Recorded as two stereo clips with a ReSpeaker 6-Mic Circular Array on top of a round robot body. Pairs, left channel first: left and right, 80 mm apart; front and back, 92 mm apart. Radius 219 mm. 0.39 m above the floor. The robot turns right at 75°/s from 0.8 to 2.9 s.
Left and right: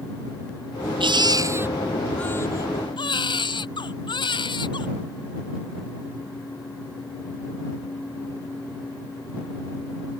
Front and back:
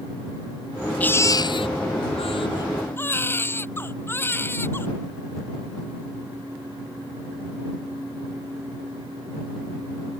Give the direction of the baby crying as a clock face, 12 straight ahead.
3 o'clock.